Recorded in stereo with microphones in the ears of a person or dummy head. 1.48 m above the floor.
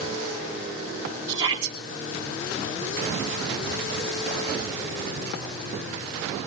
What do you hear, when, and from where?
1.3 s a shout: 20° right (ahead or behind), 3.5 m